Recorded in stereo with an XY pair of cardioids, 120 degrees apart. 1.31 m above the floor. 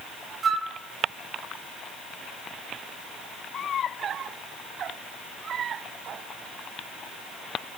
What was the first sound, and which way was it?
A flute, 35° right.